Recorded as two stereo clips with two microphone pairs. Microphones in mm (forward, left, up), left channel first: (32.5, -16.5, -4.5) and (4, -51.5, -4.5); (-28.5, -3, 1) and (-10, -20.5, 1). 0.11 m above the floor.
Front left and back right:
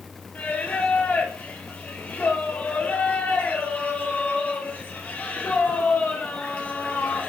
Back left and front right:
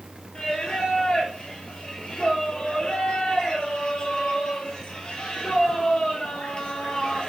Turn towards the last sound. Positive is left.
turn(degrees=90)